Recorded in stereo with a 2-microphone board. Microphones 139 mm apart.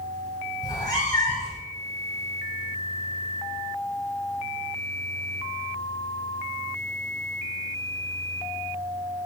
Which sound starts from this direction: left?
A cat meowing, at 0.6 s.